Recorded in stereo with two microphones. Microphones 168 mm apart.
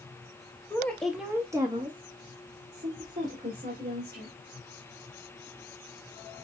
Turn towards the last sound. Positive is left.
turn(degrees=-60)  # may be behind; listen again after turning